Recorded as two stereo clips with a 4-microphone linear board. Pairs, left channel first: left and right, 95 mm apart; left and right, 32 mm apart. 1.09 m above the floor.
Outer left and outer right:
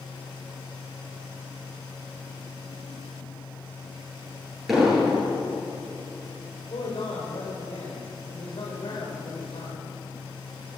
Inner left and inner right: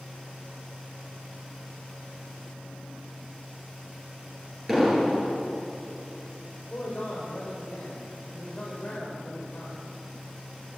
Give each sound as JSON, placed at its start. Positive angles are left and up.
{"t": 4.7, "sound": "an explosion", "side_deg": 0, "distance_m": 9.5}
{"t": 6.7, "sound": "a man speaking", "side_deg": 55, "distance_m": 4.0}